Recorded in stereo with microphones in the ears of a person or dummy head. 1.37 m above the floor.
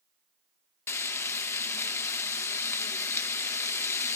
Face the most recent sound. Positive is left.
turn(degrees=15)  # may be behind; listen again after turning